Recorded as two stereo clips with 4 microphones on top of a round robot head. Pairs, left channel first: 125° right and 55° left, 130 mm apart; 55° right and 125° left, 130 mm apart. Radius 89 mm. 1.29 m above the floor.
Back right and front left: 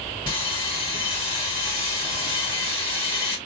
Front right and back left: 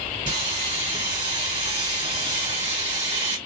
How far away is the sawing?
About 1.9 m.